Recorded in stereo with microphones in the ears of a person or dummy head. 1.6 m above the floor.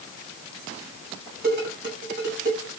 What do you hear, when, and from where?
1.4 s dishes clattering: 45° right (ahead or behind), 6.5 m